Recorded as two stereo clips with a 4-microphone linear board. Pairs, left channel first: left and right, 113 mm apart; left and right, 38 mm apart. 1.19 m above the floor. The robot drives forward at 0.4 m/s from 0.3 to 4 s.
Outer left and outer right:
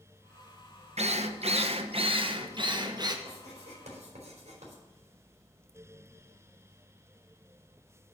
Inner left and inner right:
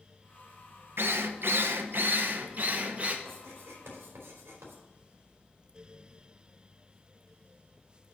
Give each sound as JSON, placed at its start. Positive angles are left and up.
{"t": 1.0, "sound": "a drill", "side_deg": -70, "distance_m": 0.7}
{"t": 3.2, "sound": "writing", "side_deg": -85, "distance_m": 3.5}